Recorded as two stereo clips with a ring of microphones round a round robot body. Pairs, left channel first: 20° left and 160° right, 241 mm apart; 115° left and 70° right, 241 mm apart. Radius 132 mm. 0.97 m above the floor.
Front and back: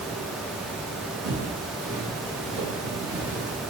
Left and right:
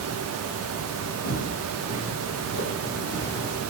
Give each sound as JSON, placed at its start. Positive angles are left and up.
{"t": 1.2, "sound": "footsteps", "azimuth_deg": 150, "distance_m": 2.0}